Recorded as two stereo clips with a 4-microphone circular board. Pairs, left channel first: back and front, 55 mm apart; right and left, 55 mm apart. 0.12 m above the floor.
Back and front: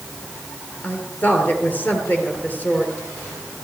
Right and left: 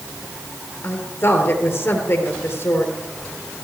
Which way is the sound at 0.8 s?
130° right.